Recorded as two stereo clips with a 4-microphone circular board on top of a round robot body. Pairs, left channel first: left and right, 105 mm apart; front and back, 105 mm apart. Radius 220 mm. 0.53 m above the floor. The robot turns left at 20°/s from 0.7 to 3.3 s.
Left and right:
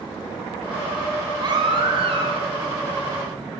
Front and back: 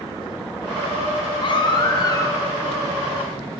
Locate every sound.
1.4 s a baby crying: 40° right, 1.8 m; by 2.5 s 65° right, 1.8 m